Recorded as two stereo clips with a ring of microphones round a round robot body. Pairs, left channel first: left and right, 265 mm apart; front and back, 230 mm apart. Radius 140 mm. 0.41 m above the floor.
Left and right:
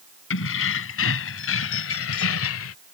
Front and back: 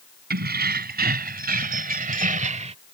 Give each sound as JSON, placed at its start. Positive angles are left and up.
{"t": 0.3, "sound": "keys jangling", "azimuth_deg": 135}